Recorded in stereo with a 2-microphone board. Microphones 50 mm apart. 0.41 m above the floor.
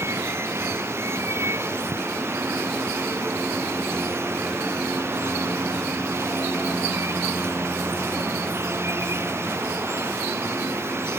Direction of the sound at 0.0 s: 60° right (ahead or behind).